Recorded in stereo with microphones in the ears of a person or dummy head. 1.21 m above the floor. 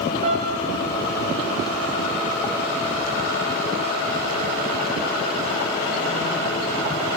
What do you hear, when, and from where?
0.2 s a piano: 50° right (ahead or behind), 3 m